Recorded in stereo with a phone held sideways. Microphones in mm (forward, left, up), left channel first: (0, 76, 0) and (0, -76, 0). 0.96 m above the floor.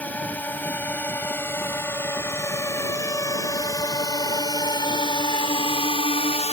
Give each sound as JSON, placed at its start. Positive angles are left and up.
{"t": 0.0, "sound": "a drone", "side_deg": 10}